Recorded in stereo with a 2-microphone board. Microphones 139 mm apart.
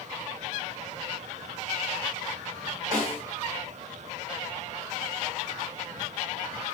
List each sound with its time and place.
2.9 s a snare drum: 75° right (ahead or behind), 2 m